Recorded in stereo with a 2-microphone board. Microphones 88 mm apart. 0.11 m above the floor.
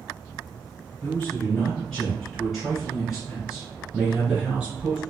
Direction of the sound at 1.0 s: 10° left (ahead or behind).